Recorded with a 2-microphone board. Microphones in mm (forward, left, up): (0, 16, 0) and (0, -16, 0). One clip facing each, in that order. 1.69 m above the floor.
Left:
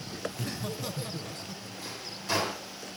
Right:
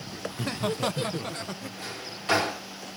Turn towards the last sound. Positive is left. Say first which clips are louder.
# right 3 dB
turn(degrees=-45)  # may be behind; listen again after turning